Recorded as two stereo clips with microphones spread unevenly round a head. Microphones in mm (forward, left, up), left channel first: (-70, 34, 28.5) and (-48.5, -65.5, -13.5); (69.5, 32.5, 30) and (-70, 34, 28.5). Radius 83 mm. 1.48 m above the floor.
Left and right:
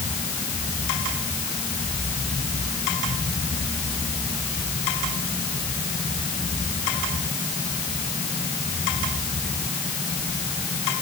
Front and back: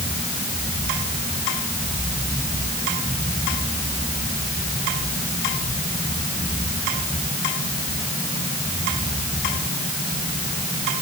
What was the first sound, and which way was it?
Only background noise.